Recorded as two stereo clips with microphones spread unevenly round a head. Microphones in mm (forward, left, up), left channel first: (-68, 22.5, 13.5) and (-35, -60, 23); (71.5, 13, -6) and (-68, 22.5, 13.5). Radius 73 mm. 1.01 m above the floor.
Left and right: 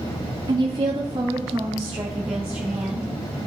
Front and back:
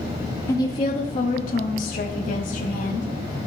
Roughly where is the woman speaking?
Ahead right.